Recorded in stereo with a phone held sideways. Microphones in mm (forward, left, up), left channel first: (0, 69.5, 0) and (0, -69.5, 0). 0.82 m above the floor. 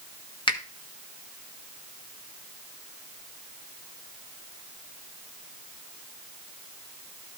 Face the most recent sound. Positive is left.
turn(degrees=35)  # may be behind; listen again after turning